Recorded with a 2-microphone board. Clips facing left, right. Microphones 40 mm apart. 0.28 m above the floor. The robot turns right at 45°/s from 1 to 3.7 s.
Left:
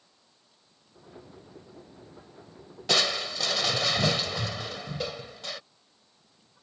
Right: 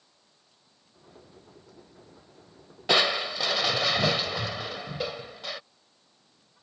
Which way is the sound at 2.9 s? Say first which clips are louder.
Right 3 dB; 20° right (ahead or behind).